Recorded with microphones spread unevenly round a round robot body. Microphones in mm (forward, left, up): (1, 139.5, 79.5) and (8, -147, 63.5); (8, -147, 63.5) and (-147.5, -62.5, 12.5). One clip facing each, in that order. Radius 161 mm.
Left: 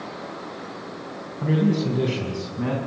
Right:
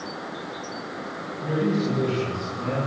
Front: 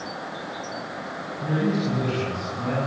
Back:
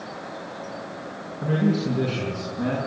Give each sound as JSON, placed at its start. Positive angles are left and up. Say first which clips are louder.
{"t": 1.4, "sound": "a man speaking", "louder": "left 2 dB, back 2 dB", "azimuth_deg": 70, "distance_m": 7.0}